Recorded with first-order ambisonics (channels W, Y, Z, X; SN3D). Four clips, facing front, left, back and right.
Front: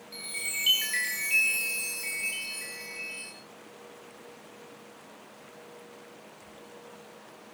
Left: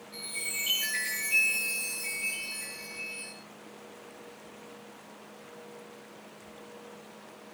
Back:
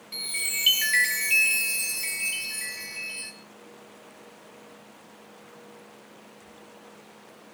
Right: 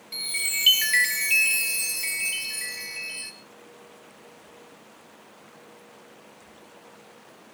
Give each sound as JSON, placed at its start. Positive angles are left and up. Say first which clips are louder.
{"t": 0.1, "sound": "a chime", "louder": "right 8 dB, back 4 dB", "azimuth_deg": -115, "distance_m": 3.5}